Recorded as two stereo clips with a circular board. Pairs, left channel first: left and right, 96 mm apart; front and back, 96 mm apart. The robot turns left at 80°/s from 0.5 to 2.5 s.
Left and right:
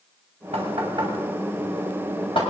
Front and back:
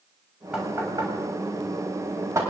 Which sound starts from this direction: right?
Knocking, at 0.5 s.